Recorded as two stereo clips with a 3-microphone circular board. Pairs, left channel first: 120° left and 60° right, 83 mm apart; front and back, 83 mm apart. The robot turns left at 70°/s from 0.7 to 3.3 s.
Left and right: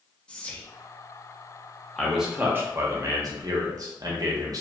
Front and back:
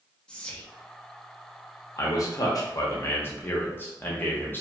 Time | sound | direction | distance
0.3 | whispering | 60° left | 0.5 m
2.0 | a man speaking | 40° left | 0.7 m